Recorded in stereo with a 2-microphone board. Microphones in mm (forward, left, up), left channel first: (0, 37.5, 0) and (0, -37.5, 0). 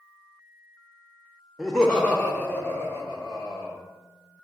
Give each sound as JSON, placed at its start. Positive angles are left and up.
{"t": 1.6, "sound": "laughter", "side_deg": 0, "distance_m": 0.6}